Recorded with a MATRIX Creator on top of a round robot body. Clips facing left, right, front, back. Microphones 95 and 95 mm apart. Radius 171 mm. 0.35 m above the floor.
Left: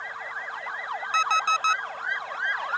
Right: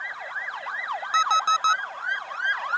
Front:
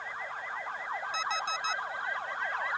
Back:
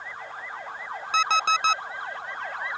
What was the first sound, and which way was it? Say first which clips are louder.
An alarm clock: right 2 dB, back 14 dB; 160° right.